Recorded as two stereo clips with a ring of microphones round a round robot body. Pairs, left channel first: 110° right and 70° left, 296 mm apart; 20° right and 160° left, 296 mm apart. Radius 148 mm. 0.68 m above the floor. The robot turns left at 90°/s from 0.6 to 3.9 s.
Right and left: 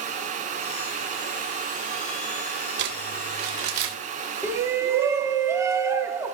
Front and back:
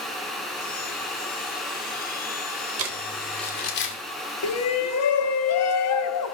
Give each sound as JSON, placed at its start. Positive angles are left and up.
{"t": 2.8, "sound": "crumpling", "azimuth_deg": 120, "distance_m": 1.8}
{"t": 4.4, "sound": "a shout", "azimuth_deg": -10, "distance_m": 1.0}